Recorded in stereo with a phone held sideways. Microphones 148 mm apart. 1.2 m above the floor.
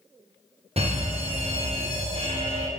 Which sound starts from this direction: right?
An alarm, at 0.8 s.